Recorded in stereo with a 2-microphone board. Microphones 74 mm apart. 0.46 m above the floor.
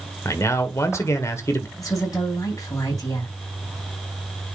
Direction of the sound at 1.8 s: 45° left (ahead or behind).